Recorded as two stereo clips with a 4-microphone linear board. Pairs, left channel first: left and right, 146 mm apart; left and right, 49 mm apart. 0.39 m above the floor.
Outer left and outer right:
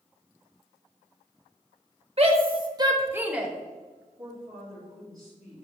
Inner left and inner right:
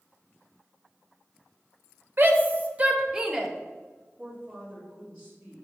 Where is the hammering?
I don't hear hammering.